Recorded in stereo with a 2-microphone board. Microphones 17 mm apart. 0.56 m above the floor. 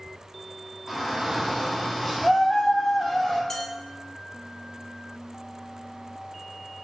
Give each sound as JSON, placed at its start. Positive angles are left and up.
{"t": 0.9, "sound": "a shout", "side_deg": -15, "distance_m": 1.4}
{"t": 3.5, "sound": "dishes clattering", "side_deg": 30, "distance_m": 0.7}